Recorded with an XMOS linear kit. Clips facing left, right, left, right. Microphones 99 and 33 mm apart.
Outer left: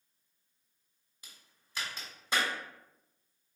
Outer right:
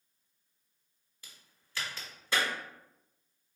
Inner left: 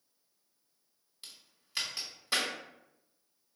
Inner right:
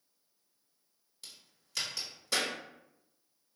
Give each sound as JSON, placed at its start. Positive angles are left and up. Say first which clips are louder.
{"t": 1.2, "sound": "a crack", "louder": "even, even", "side_deg": 20, "distance_m": 1.6}